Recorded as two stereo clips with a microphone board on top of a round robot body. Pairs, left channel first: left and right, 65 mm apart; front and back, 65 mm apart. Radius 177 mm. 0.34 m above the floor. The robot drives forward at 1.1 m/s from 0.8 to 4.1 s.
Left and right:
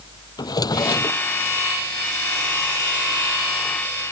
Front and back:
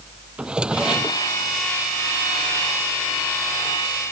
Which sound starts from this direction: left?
A drawer, at 0.4 s.